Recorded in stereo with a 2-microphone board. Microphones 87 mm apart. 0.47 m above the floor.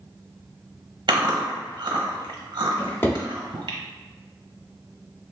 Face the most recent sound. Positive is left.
turn(degrees=25)  # may be behind; listen again after turning